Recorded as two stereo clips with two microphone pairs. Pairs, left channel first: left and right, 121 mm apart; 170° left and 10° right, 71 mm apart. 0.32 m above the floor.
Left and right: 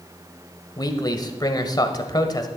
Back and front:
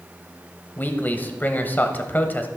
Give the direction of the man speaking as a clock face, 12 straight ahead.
8 o'clock.